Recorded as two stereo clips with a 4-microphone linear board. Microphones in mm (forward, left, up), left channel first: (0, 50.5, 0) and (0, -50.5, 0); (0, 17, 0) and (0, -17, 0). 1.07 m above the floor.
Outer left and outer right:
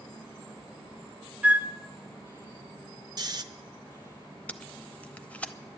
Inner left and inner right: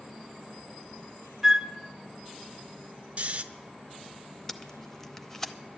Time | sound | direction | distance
1.4 | a flute | 15° right (ahead or behind) | 0.5 m
3.2 | snoring | 40° right (ahead or behind) | 0.6 m
4.5 | tape being pulled | 15° left (ahead or behind) | 0.6 m